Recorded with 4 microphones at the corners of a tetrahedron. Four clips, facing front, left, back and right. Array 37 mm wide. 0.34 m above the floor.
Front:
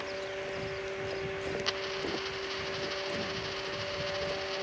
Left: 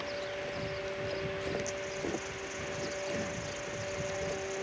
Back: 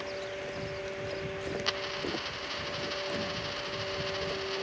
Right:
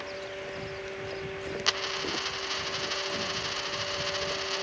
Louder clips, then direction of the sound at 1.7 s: Right 6 dB, back 3 dB; 100° right.